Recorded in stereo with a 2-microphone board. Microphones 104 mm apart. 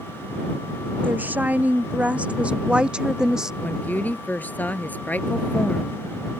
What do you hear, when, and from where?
1.0 s a woman speaking: 15° right (ahead or behind); by 3.5 s 5° right (ahead or behind)
3.6 s a woman speaking: 15° left (ahead or behind)